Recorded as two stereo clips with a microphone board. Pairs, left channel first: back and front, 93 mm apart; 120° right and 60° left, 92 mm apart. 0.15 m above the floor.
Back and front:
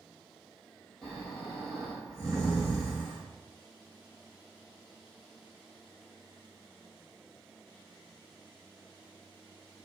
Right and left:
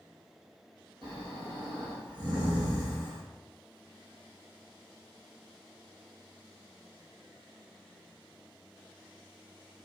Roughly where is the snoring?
Left.